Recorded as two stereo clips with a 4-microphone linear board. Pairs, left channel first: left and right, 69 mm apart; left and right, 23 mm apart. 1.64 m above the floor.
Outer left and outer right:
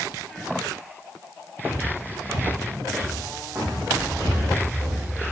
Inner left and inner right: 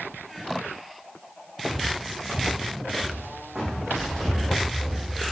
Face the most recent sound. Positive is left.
turn(degrees=-30)  # may be behind; listen again after turning